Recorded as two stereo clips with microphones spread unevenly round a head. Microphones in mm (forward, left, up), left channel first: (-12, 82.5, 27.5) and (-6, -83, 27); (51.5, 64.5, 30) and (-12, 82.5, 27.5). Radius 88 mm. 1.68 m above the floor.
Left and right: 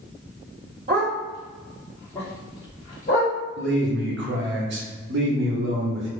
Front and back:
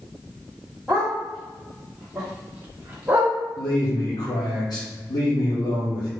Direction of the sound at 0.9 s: 95° right.